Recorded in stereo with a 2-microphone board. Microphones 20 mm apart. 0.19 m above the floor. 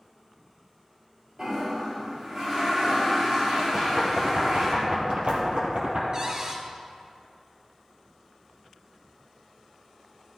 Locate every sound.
1.4 s a toilet flushing: 35° right (ahead or behind), 4.5 m
3.7 s knocking: 60° right (ahead or behind), 3 m
6.1 s a cupboard door: 35° right (ahead or behind), 1.6 m